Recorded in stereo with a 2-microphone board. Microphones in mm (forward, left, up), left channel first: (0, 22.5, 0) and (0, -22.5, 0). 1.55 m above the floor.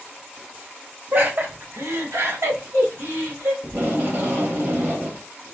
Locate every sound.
1.1 s laughter: 45° right (ahead or behind), 1.0 m; by 3.5 s 75° right (ahead or behind), 1.9 m
3.6 s tape being pulled: 60° right (ahead or behind), 1.4 m